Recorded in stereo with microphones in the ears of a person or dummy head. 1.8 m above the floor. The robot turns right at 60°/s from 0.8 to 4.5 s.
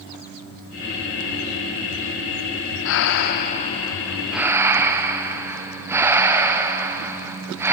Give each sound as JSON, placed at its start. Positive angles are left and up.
{"t": 2.9, "sound": "breathing", "azimuth_deg": 95, "distance_m": 0.9}